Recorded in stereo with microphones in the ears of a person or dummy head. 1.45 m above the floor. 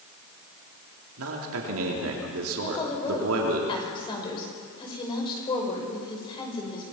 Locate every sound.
1.2 s a man speaking: 80° right, 3.5 m
2.6 s a woman speaking: 30° left (ahead or behind), 5.5 m